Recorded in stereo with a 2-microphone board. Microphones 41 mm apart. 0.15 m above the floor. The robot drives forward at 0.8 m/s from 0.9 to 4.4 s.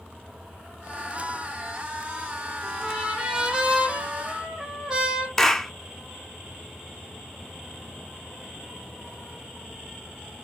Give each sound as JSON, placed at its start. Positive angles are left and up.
{"t": 2.6, "sound": "a trumpet", "side_deg": -15, "distance_m": 5.0}
{"t": 5.4, "sound": "a clap", "side_deg": 15, "distance_m": 0.9}